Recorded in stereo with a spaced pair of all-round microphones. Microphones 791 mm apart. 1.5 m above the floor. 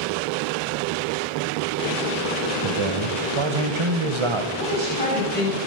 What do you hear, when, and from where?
2.6 s a man speaking: 35° right (ahead or behind), 1.8 m
4.6 s a woman speaking: 10° left (ahead or behind), 9.5 m